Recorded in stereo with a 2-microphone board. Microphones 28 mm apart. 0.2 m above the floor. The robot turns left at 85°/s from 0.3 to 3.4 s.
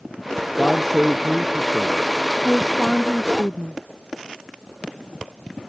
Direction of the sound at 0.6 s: 35° left.